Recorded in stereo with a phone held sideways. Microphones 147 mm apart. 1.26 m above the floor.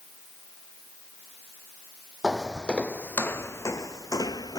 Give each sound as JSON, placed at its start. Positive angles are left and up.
{"t": 2.2, "sound": "footsteps", "side_deg": 0}